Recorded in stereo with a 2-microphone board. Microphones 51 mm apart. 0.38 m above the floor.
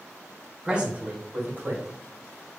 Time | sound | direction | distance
0.6 | a man speaking | 15° right (ahead or behind) | 0.9 m